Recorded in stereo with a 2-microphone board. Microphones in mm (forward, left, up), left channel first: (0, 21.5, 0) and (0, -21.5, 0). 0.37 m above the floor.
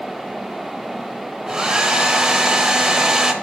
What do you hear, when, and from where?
1.5 s a hair dryer: 15° right (ahead or behind), 0.6 m